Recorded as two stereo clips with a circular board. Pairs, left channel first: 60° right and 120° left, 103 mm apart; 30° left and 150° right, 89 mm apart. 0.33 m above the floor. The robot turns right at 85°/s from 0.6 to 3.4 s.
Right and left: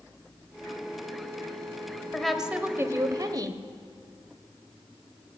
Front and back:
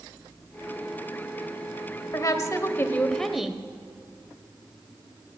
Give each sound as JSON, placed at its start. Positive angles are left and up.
{"t": 2.1, "sound": "a woman speaking", "azimuth_deg": 15, "distance_m": 1.0}